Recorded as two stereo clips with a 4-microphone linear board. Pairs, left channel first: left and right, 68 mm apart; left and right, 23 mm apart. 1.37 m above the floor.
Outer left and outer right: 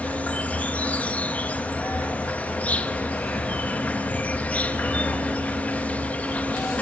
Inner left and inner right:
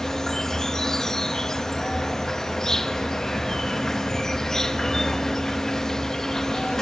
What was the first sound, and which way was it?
An insect, 25° left (ahead or behind).